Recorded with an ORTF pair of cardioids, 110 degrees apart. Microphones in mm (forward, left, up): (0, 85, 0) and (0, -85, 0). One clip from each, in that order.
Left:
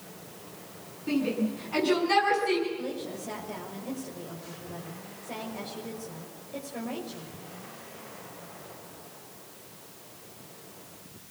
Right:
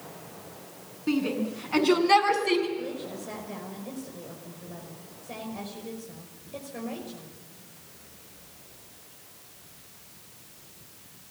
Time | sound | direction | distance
1.1 | a shout | 30° right | 9 m
2.8 | a woman speaking | straight ahead | 5.5 m